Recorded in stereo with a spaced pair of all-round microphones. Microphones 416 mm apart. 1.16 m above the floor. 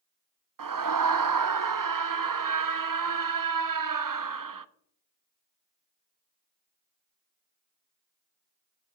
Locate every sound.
0.6 s a scream: 50° right (ahead or behind), 0.5 m